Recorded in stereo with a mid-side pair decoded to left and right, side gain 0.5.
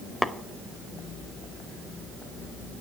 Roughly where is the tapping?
Ahead.